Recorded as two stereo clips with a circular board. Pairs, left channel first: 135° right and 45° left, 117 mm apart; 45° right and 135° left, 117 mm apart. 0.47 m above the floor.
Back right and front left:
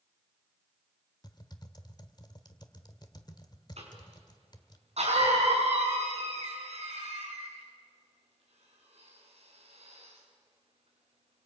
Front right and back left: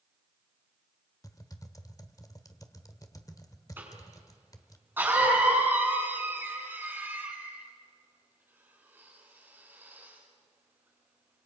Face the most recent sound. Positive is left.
turn(degrees=65)